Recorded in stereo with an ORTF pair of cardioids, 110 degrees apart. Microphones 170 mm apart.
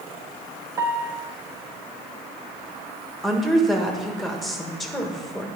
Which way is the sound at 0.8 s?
20° right.